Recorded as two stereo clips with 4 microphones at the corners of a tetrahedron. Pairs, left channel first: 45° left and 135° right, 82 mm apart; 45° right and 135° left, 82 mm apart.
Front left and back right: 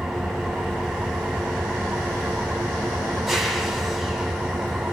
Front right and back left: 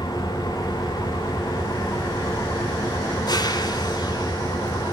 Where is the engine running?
45° right, 1.5 m.